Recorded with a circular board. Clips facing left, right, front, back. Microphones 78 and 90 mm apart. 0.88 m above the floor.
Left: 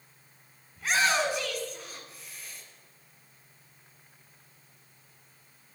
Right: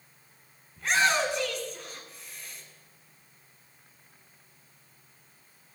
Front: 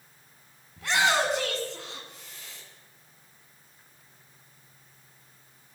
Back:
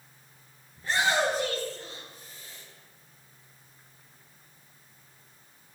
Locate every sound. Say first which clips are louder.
0.8 s a shout: right 1 dB, front 1 dB; 5° left, 8.5 m